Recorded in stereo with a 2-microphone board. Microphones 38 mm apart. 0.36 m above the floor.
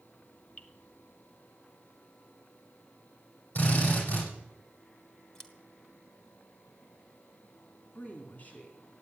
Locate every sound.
0.6 s dripping: 45° left (ahead or behind), 1.4 m
3.5 s a drill: 55° left (ahead or behind), 9.5 m
5.3 s scissors: 20° left (ahead or behind), 2 m
8.0 s a woman speaking: 45° left (ahead or behind), 3 m